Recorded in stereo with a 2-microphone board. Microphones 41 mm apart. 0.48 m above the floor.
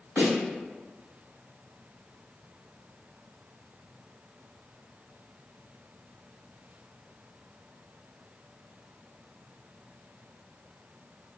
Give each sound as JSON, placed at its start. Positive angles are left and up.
{"t": 0.2, "sound": "a snare drum", "side_deg": -60, "distance_m": 2.0}